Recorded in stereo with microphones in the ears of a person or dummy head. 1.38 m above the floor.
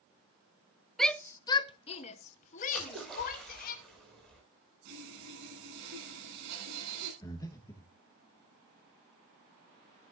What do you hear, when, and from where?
1.0 s a shout: centre (ahead or behind), 0.5 m; by 3.8 s 50° left (ahead or behind), 1.7 m
2.8 s a splash: 5° left (ahead or behind), 9 m
4.8 s sawing: 65° right (ahead or behind), 8 m
7.2 s breathing: 15° left (ahead or behind), 1.4 m